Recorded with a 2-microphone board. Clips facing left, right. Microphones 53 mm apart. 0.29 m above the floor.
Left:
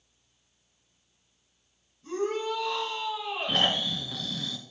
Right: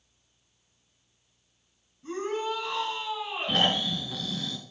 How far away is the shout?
About 4 m.